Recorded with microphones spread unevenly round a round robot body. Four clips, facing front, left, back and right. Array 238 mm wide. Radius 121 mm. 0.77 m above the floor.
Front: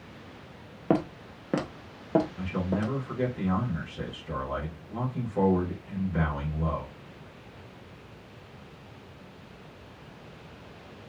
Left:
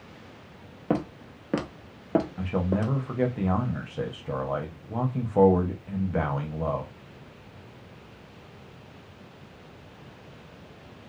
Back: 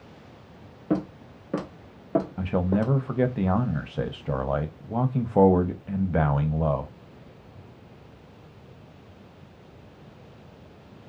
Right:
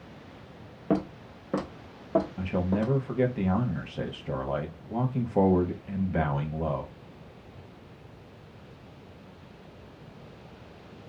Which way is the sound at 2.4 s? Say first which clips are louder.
Left 1 dB, back 5 dB; 170° right.